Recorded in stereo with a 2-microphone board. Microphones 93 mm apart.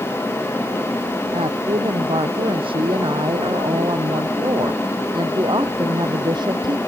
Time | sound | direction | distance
1.3 | a woman speaking | 75° right (ahead or behind) | ?